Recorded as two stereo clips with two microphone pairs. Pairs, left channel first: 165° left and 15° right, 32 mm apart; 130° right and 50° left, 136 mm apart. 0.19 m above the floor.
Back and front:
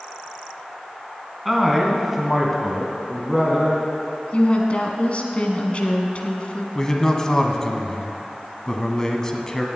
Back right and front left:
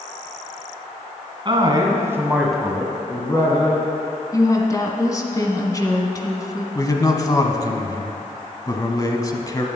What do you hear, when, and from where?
1.4 s a man speaking: 80° left, 2 m; by 3.8 s 90° right, 2 m
4.3 s a woman speaking: straight behind, 1.3 m
6.8 s a man speaking: 145° right, 1.1 m